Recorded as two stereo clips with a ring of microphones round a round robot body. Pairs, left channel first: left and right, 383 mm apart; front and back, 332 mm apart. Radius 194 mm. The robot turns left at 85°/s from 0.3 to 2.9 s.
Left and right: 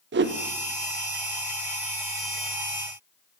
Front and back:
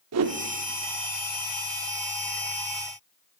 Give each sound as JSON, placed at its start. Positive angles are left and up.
{"t": 0.1, "sound": "a whoosh", "azimuth_deg": -145, "distance_m": 0.6}